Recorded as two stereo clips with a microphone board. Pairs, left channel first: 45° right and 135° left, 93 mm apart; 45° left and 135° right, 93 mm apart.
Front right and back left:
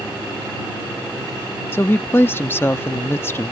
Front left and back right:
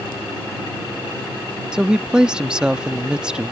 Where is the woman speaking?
65° right.